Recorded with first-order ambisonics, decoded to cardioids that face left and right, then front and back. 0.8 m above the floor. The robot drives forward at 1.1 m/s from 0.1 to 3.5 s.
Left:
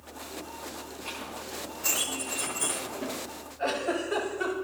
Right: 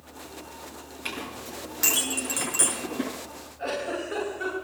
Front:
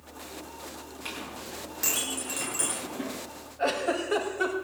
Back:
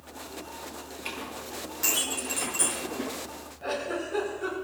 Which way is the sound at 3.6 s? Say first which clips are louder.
Left 1 dB, front 4 dB; 10° left.